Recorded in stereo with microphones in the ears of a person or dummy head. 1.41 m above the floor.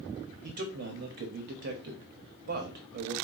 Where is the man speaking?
50° right (ahead or behind), 0.7 m.